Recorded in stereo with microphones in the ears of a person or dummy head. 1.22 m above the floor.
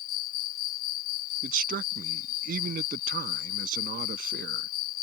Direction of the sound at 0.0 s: 50° left (ahead or behind).